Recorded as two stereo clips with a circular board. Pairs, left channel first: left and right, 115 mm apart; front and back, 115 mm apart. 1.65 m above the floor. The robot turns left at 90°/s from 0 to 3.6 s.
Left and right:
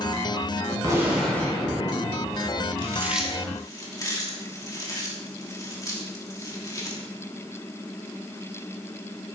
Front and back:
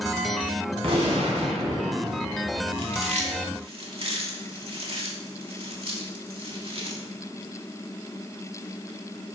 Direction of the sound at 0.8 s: 145° right.